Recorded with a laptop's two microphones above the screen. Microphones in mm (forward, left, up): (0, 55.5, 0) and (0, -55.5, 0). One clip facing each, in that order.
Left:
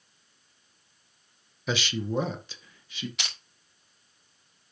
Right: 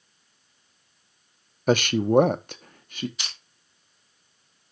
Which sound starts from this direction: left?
Crushing, at 3.2 s.